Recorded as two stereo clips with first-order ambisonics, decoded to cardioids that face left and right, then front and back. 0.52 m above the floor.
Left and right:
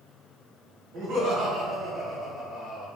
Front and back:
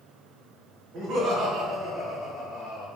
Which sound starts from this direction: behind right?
Laughter, at 0.9 s.